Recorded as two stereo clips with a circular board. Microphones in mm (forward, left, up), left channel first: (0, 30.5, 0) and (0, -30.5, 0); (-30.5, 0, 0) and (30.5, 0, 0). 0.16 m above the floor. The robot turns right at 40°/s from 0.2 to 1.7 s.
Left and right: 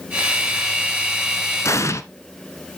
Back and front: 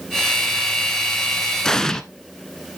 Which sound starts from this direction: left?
An explosion, at 1.6 s.